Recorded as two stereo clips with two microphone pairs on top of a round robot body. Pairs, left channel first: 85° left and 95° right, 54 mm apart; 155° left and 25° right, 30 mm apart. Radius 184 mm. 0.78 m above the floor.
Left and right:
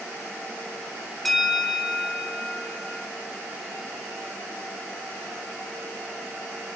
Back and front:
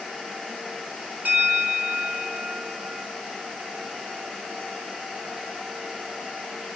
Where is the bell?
5° right, 1.4 m.